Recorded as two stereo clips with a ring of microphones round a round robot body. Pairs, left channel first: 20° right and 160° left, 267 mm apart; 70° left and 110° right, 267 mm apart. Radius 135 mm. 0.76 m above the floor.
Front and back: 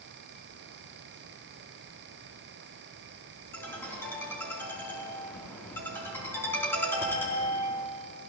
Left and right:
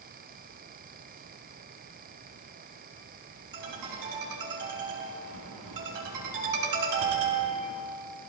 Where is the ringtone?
105° right, 4.5 m.